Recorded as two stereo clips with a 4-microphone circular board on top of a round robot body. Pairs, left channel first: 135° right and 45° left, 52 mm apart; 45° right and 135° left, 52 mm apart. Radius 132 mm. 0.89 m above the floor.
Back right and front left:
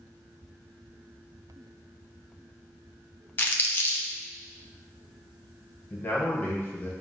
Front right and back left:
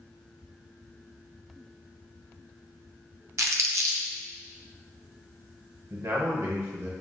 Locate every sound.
3.4 s crumpling: 170° left, 0.6 m
5.9 s a man speaking: 170° left, 0.8 m